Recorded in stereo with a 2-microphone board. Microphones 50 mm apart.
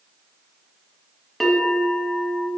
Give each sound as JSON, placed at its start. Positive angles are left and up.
{"t": 1.4, "sound": "a bell", "side_deg": 5, "distance_m": 1.9}